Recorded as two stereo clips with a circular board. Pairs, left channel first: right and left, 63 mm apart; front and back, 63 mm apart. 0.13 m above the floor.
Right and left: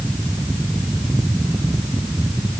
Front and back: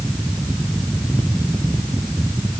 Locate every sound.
Only background noise.